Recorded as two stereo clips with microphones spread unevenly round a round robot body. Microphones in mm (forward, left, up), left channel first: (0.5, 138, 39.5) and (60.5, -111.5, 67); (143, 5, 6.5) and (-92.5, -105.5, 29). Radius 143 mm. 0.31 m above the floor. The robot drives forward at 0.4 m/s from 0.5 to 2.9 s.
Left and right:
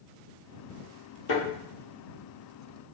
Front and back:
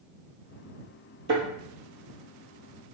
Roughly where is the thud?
Behind left.